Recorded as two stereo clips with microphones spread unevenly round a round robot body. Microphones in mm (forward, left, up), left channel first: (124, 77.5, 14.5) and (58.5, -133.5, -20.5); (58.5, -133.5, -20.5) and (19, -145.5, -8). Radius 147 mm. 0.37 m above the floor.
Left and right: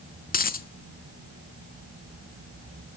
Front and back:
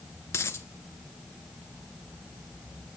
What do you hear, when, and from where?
0.3 s a dropped coin: 20° left, 0.9 m